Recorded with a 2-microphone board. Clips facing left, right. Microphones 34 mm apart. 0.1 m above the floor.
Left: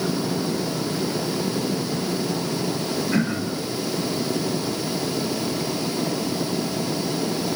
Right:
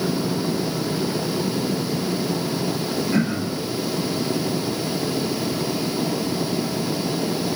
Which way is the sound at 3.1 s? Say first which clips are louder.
Right 1 dB; 45° left (ahead or behind).